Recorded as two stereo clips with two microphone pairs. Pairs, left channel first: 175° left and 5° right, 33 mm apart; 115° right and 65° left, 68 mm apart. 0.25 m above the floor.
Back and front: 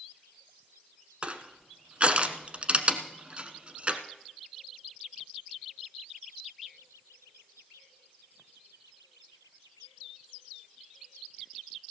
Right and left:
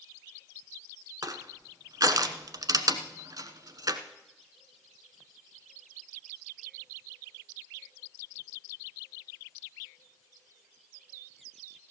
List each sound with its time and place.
1.2 s crushing: 50° left, 1.1 m